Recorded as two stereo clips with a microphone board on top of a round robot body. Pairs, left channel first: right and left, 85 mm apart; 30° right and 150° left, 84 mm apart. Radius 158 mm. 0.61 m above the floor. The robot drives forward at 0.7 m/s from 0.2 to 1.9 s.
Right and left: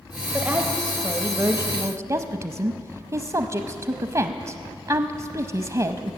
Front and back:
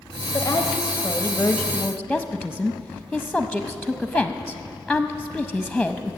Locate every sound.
0.3 s a woman speaking: 20° left, 1.6 m; by 6.2 s 60° left, 0.9 m